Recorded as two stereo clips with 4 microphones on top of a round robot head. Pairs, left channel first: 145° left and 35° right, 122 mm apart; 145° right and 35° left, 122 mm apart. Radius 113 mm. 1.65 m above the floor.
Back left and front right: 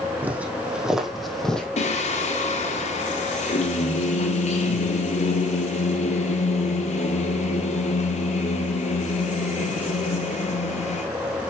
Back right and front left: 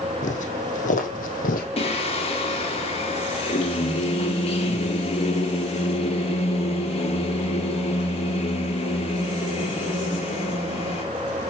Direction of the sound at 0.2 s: 115° right.